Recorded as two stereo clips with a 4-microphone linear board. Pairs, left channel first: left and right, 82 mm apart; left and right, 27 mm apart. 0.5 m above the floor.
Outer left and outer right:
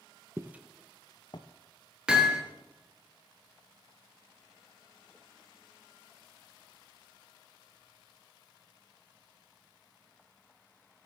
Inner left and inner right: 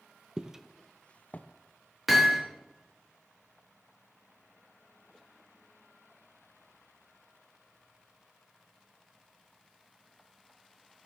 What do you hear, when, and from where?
0.4 s footsteps: 30° right (ahead or behind), 1.0 m; by 1.5 s 65° left (ahead or behind), 1.1 m
2.1 s hammering: 10° right (ahead or behind), 3.5 m